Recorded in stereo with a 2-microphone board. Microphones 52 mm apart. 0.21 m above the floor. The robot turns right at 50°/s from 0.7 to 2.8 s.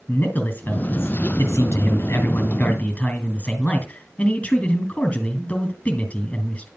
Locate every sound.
0.1 s a man speaking: 50° left, 3 m; by 6.7 s 155° left, 3 m